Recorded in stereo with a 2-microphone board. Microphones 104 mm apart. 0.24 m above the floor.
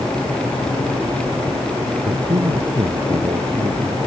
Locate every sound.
2.0 s a man speaking: 60° right (ahead or behind)